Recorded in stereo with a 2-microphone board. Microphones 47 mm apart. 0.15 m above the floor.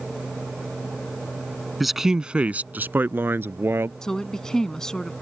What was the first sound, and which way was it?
A man speaking, centre (ahead or behind).